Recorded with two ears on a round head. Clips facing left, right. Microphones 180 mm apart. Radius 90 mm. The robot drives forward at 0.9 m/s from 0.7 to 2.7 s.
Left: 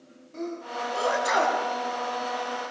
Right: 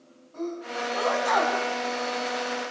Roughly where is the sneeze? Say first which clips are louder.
Right 1 dB; left.